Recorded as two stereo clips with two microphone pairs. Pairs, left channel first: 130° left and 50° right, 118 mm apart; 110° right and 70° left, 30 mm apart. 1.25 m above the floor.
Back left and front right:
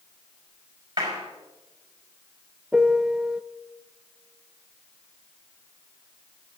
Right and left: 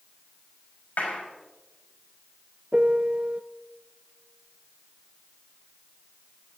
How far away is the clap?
About 5 m.